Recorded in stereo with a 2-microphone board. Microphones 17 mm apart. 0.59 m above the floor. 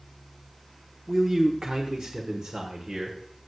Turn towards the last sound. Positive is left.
turn(degrees=-65)  # may be behind; listen again after turning